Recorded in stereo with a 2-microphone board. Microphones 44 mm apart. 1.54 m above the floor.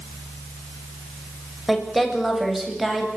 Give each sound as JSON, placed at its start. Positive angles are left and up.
{"t": 1.7, "sound": "a woman speaking", "side_deg": 0, "distance_m": 6.0}